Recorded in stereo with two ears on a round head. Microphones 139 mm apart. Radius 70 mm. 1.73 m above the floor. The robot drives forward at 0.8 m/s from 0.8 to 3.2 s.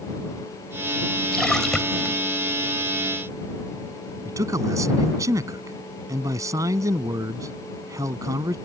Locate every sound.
1.3 s a splash: 5° left (ahead or behind)
4.2 s a man speaking: 20° right (ahead or behind)